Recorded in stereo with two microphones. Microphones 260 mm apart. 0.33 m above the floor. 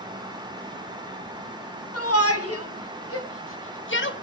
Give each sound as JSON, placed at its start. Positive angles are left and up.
{"t": 1.9, "sound": "a shout", "side_deg": 70, "distance_m": 3.5}